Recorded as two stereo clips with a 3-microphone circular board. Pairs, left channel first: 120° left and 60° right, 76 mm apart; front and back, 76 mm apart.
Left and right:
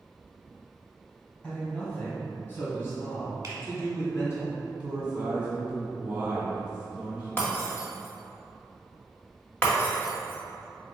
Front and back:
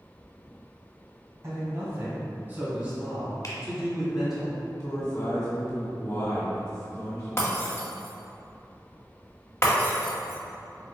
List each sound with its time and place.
1.4 s a man speaking: straight behind, 1.8 m; by 4.4 s 85° left, 1.9 m
3.4 s a finger snap: 20° right, 1.4 m
4.8 s a man speaking: 10° left, 1.8 m
7.4 s breaking glass: 55° left, 1.9 m